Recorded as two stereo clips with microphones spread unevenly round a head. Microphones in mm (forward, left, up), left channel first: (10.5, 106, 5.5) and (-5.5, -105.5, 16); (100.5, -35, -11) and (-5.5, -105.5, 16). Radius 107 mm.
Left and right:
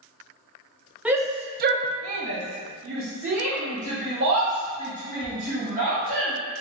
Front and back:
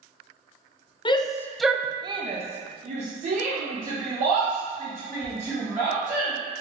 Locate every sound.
1.1 s a shout: 10° right, 0.6 m; by 6.3 s 130° right, 3 m